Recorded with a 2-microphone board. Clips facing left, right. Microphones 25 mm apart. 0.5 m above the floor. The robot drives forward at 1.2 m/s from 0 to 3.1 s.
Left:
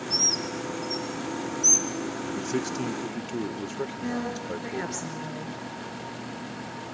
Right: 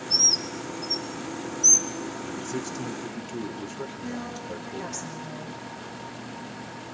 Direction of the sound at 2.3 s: 30° left (ahead or behind).